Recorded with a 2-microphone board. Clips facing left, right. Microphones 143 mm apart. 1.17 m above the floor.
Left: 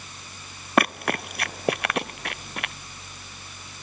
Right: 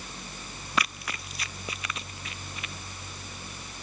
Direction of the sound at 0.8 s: 60° left (ahead or behind).